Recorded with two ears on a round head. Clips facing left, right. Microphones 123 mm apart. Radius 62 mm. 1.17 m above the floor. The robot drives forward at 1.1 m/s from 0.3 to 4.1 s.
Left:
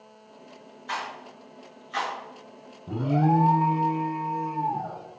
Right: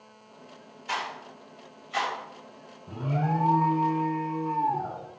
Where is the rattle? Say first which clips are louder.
Even; 10° right (ahead or behind), 5 m.